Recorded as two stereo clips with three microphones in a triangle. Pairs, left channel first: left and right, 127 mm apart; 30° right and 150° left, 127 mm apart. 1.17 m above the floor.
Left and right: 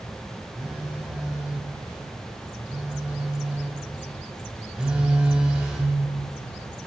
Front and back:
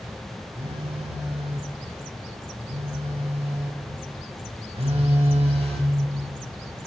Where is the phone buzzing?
170° right, 1.3 m.